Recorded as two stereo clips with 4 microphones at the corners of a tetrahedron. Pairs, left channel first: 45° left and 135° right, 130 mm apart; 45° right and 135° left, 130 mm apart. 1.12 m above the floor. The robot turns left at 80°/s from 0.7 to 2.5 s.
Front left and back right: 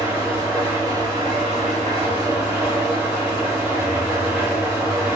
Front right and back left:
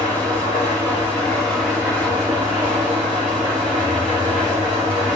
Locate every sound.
0.0 s an engine running: 60° right, 1.3 m; by 5.2 s 155° left, 1.3 m